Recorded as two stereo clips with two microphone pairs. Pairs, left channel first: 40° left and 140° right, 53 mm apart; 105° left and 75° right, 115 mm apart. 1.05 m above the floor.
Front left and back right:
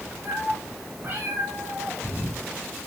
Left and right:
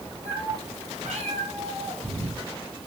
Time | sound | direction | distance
0.2 | a cat meowing | 85° right | 7 m